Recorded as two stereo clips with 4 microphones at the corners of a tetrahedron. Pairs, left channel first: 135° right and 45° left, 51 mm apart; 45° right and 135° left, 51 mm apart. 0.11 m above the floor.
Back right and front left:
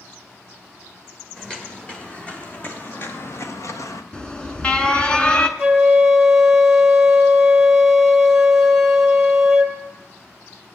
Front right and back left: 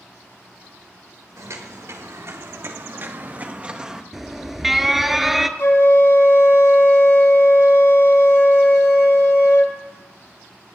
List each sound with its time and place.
1.4 s footsteps: 150° left, 3.5 m; by 4.0 s 145° right, 1.8 m
4.1 s an alarm: 150° right, 0.9 m
5.6 s a flute: 35° right, 1.5 m